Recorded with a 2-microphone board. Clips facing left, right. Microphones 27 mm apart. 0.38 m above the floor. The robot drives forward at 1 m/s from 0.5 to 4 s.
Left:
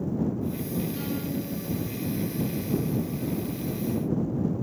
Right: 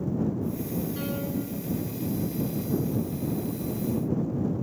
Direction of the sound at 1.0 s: 15° right (ahead or behind).